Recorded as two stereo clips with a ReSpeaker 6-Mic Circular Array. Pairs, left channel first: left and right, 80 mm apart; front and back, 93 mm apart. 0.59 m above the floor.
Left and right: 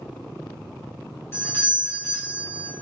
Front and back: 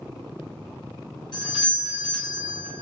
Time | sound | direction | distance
1.3 | a doorbell | 30° left | 5.5 m